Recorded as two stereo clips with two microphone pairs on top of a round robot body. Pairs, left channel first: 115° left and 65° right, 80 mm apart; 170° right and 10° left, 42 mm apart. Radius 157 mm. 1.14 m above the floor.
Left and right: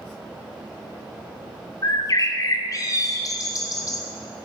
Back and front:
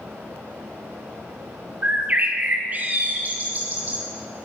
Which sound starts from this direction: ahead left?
A bird, at 1.8 s.